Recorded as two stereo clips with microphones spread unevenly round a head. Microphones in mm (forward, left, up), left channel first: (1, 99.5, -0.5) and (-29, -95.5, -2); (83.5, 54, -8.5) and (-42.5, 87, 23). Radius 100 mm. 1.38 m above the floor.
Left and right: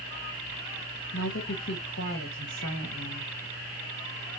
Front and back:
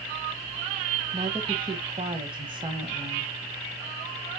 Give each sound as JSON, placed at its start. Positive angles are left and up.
{"t": 1.1, "sound": "a woman speaking", "azimuth_deg": 115, "distance_m": 1.5}